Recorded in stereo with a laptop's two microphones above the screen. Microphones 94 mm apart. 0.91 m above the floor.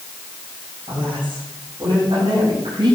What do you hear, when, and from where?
0.9 s a woman speaking: 80° right, 6.5 m